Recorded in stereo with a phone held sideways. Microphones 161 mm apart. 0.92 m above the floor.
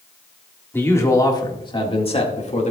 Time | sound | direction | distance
0.7 | a man speaking | 15° left (ahead or behind) | 1.7 m